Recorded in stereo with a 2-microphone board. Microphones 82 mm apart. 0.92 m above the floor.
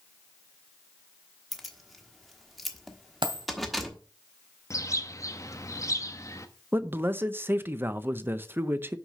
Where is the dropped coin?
80° right, 2 m.